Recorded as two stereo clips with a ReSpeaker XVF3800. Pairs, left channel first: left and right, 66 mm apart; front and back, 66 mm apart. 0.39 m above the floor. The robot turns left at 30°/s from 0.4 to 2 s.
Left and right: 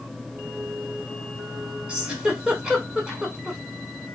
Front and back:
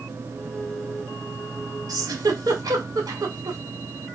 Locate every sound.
1.9 s a giggle: 165° right, 0.9 m